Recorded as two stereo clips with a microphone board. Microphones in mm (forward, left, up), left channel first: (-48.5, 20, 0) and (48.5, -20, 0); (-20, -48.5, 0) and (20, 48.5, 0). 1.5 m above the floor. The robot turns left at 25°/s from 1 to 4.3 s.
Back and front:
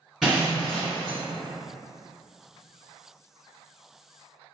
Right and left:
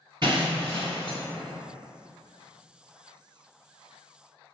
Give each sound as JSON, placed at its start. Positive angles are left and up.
{"t": 0.2, "sound": "breaking glass", "azimuth_deg": 70, "distance_m": 2.0}